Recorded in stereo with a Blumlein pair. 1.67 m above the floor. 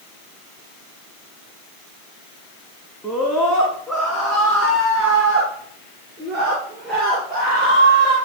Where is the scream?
5° left, 3 m; by 8.2 s 15° right, 6.5 m.